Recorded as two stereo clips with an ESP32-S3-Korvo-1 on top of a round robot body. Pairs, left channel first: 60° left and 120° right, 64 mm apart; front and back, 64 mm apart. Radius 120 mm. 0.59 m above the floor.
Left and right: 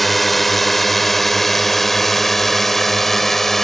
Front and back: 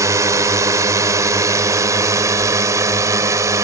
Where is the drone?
150° left; by 3.6 s 145° left.